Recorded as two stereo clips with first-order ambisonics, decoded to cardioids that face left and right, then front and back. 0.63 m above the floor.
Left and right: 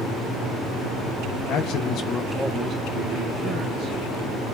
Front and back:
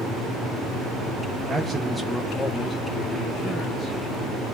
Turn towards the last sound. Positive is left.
turn(degrees=-60)